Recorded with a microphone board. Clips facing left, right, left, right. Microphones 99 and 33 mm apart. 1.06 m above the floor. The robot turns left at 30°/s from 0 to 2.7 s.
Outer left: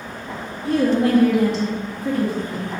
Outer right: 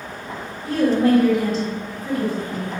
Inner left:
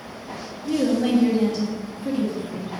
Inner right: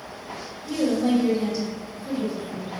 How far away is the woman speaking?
About 1.5 m.